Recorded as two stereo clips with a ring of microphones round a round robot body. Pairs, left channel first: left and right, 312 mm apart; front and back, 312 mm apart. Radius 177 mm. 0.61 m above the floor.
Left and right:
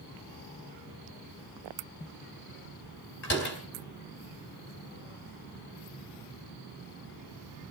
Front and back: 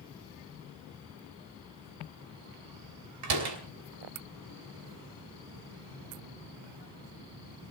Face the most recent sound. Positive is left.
turn(degrees=150)